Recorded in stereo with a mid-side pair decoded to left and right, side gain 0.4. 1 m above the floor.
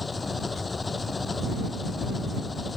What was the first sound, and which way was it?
An engine running, 25° left.